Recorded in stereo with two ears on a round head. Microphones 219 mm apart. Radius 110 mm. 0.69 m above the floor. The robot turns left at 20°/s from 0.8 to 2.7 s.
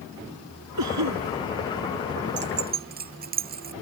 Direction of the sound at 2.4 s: 45° right (ahead or behind).